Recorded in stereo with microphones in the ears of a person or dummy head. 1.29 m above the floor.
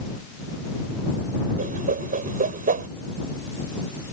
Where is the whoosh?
45° right (ahead or behind).